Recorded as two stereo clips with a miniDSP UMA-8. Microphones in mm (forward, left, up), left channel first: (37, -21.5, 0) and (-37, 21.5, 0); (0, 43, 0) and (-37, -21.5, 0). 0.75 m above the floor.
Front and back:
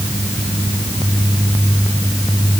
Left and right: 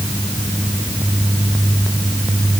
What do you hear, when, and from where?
Only background noise.